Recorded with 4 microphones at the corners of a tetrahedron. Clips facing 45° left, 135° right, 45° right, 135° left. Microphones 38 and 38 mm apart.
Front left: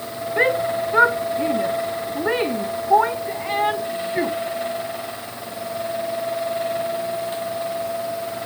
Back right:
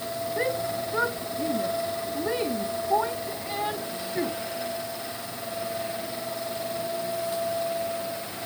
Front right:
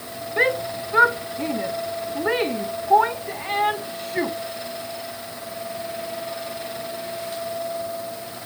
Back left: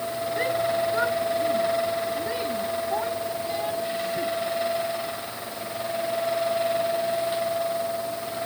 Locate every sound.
0.4 s a shout: straight ahead; by 4.4 s 10° right